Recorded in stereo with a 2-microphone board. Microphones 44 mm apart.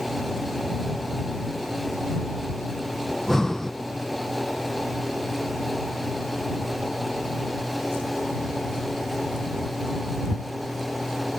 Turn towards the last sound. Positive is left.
turn(degrees=10)  # may be behind; listen again after turning